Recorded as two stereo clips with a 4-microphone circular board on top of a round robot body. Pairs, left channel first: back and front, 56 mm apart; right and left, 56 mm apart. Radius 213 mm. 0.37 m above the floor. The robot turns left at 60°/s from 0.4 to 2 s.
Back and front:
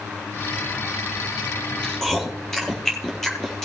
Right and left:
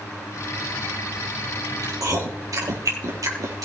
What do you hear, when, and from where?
1.8 s chewing: 110° left, 3.5 m; by 3.6 s 100° left, 3.5 m